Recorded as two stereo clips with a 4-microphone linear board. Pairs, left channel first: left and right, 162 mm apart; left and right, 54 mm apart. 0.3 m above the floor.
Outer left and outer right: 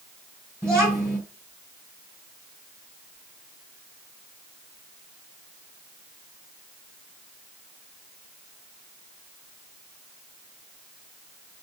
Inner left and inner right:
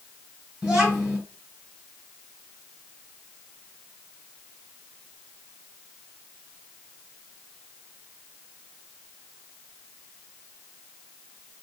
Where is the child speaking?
15° right (ahead or behind), 1.6 m.